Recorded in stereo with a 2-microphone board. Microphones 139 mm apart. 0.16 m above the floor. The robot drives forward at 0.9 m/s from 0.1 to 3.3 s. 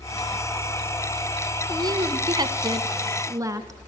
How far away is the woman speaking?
About 1.3 m.